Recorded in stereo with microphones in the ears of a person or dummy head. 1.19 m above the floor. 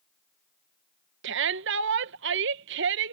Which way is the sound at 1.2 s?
65° right (ahead or behind).